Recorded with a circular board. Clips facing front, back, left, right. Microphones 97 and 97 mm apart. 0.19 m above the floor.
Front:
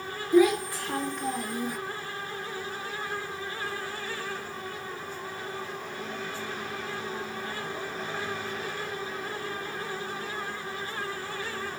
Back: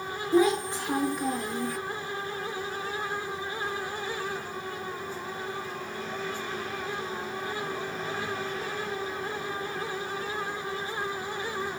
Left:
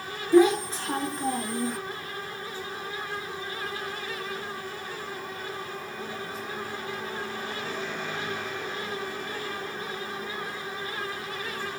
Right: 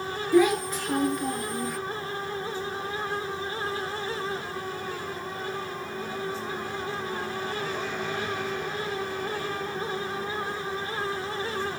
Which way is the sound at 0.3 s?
135° left.